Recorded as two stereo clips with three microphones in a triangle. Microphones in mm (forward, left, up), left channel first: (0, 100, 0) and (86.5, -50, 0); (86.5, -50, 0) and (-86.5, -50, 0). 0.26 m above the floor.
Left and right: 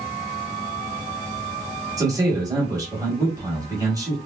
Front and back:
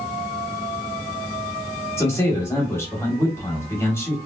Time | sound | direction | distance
2.0 | a man speaking | 45° right | 1.1 m